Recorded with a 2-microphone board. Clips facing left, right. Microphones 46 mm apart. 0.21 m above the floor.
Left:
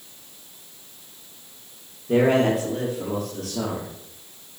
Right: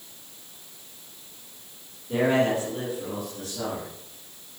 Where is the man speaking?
75° left (ahead or behind), 6 m; by 3.9 s 70° left (ahead or behind), 6 m.